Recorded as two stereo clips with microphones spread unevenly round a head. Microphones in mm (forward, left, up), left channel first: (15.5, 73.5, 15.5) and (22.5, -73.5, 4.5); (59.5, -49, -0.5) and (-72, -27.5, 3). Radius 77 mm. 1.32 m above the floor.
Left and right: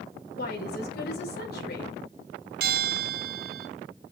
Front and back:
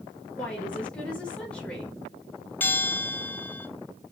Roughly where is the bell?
Right.